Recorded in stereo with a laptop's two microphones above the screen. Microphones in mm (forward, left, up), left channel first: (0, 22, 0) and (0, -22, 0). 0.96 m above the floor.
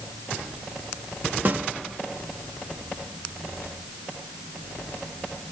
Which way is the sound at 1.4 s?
45° right (ahead or behind).